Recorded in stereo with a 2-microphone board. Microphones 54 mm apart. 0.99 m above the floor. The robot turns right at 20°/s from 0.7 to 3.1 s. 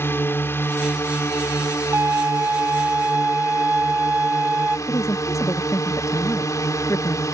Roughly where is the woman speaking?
Left.